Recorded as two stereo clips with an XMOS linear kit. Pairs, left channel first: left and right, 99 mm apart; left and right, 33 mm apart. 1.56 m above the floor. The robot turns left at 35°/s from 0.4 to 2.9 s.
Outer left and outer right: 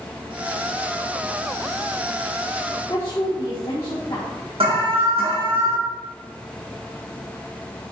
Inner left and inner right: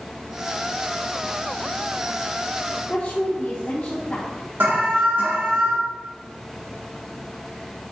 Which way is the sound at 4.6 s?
70° right (ahead or behind).